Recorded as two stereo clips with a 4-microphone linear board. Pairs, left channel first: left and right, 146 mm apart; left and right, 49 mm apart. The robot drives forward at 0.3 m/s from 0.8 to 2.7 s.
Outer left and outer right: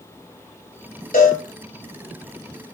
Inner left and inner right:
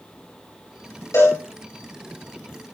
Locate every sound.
1.1 s a cowbell: 75° left (ahead or behind), 6.5 m